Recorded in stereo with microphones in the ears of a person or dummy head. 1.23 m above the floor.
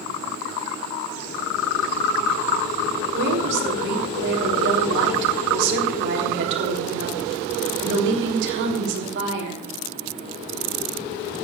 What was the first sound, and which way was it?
A woman speaking, 65° right (ahead or behind).